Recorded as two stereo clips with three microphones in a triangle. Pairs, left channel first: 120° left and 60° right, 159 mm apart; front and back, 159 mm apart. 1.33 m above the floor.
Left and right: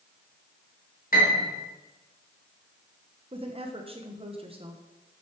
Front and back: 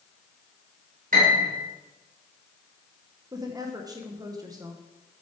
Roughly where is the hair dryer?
No hair dryer in this recording.